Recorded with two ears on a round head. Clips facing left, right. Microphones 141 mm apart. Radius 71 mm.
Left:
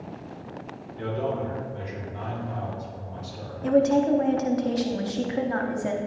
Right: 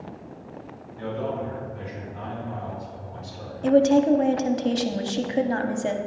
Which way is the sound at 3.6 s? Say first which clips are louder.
Right 3 dB; 30° right (ahead or behind).